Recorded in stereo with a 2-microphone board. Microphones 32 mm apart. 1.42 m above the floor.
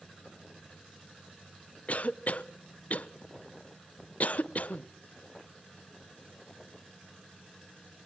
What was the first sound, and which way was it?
A cough, 45° left (ahead or behind).